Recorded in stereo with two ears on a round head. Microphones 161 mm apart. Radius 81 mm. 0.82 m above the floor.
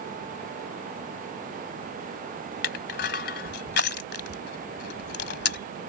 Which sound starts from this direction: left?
Crushing, at 2.6 s.